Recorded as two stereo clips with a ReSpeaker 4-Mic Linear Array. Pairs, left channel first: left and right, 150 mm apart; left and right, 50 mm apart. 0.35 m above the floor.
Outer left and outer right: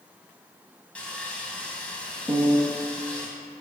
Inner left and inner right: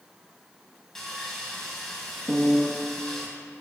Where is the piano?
Centre (ahead or behind), 1.6 m.